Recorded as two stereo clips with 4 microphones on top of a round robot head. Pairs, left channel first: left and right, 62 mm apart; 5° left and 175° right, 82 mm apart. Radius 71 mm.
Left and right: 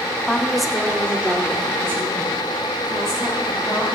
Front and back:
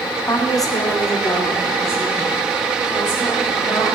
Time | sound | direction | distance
0.3 | a woman speaking | 15° left | 1.4 m